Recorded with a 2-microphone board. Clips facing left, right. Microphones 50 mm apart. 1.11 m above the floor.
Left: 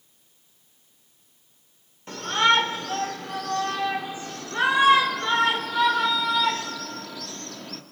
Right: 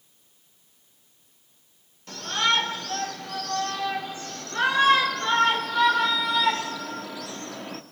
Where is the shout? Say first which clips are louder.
Left 4 dB; 30° left (ahead or behind), 4 m; by 7.8 s 20° right (ahead or behind), 2.5 m.